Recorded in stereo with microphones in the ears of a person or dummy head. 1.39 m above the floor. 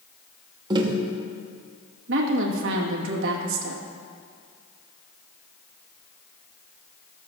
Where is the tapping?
25° right (ahead or behind), 1.2 m.